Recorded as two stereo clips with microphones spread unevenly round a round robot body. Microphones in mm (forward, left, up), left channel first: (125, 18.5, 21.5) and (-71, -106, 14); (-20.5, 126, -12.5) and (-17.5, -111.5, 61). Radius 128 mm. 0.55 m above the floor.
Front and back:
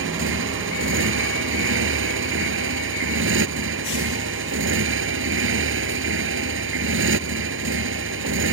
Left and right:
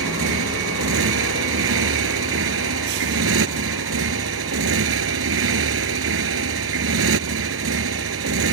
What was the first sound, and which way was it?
A motorcycle, 120° right.